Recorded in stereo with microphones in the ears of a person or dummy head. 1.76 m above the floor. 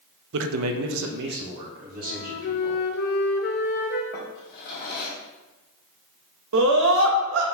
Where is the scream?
80° right, 1.4 m.